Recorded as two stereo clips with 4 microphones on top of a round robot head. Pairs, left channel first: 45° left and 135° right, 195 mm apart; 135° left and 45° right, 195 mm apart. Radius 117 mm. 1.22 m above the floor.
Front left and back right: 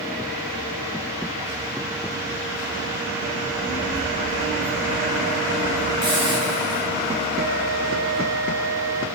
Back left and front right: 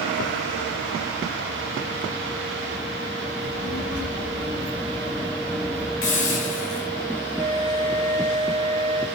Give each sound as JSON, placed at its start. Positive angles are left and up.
{"t": 3.4, "sound": "a child speaking", "azimuth_deg": 130, "distance_m": 9.0}
{"t": 6.0, "sound": "a hiss", "azimuth_deg": 160, "distance_m": 8.0}
{"t": 7.4, "sound": "a flute", "azimuth_deg": -110, "distance_m": 4.0}